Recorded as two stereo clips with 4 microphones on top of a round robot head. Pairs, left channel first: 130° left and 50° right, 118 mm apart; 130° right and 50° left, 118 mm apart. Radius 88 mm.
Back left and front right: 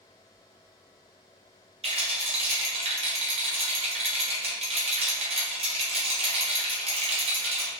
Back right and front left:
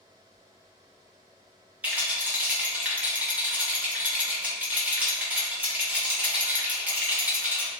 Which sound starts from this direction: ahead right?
A rattle, at 1.8 s.